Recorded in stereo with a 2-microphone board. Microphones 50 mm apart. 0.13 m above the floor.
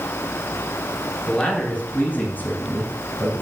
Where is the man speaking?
25° left (ahead or behind), 1.8 m; by 3.4 s 40° left (ahead or behind), 1.8 m.